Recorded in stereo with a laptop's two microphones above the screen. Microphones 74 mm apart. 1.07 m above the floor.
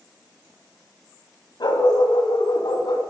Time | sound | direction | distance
1.6 | a dog barking | 70° left (ahead or behind) | 1.9 m